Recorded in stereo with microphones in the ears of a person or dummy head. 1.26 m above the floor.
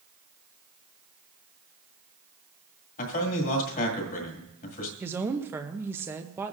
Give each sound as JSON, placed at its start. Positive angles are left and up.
{"t": 3.0, "sound": "a man speaking", "side_deg": 45, "distance_m": 1.9}
{"t": 5.0, "sound": "a woman speaking", "side_deg": -15, "distance_m": 0.6}